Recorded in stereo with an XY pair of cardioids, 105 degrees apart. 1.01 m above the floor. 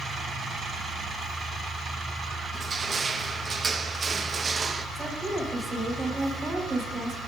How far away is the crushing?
About 0.6 m.